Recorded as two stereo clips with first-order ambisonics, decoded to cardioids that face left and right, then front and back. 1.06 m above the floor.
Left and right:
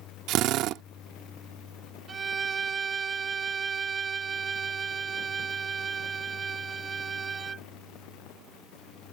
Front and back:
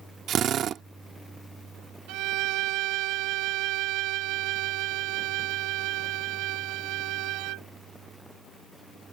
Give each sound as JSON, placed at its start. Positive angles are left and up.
{"t": 0.3, "sound": "a drill", "azimuth_deg": -125}
{"t": 2.1, "sound": "a violin", "azimuth_deg": -160}